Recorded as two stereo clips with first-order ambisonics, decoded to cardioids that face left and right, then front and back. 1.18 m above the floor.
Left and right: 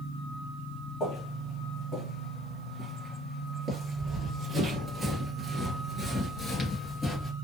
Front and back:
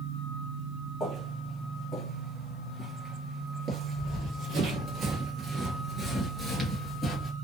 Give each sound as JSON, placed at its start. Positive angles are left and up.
{"t": 1.0, "sound": "footsteps", "azimuth_deg": 55, "distance_m": 1.6}
{"t": 4.0, "sound": "running footsteps", "azimuth_deg": -165, "distance_m": 1.5}